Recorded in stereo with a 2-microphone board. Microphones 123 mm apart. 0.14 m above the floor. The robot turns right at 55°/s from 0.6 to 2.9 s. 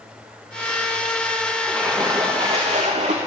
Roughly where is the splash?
Behind.